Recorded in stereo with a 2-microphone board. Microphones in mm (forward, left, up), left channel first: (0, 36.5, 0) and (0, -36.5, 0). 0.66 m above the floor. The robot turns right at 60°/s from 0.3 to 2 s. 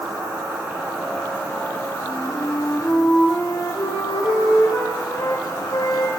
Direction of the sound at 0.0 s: 40° right.